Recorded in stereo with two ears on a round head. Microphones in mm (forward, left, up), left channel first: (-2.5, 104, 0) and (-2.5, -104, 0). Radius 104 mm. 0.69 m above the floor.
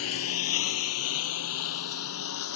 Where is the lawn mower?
70° left (ahead or behind).